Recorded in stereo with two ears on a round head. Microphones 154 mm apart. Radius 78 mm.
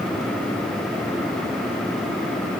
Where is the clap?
I don't hear a clap.